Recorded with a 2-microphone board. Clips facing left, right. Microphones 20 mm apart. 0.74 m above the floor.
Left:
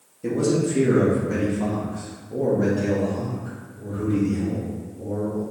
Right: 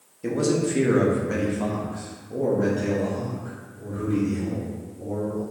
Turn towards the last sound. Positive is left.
turn(degrees=0)  # may be behind; listen again after turning